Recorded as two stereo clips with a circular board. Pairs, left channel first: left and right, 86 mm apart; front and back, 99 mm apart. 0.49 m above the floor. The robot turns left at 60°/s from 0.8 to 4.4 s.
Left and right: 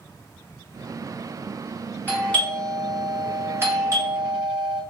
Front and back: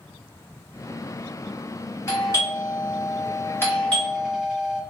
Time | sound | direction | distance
2.1 | a doorbell | 40° left | 1.3 m